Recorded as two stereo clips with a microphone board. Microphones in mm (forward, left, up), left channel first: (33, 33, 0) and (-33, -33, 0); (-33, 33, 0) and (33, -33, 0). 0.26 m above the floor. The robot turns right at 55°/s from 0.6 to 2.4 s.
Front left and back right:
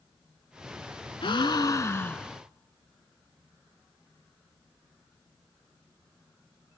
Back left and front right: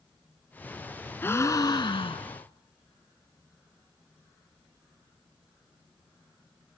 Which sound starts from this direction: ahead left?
A gasp, at 1.2 s.